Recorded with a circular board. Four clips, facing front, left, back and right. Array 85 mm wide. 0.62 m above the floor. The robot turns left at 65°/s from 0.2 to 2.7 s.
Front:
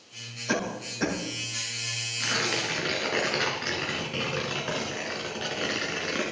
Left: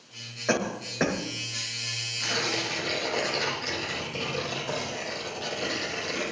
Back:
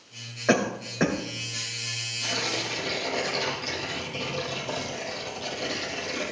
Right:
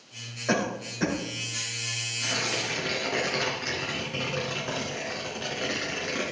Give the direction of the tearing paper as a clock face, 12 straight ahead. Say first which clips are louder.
Left 1 dB, front 2 dB; 12 o'clock.